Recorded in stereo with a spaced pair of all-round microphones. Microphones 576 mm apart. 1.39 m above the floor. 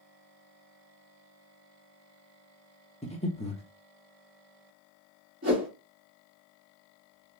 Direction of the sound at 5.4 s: 25° right (ahead or behind).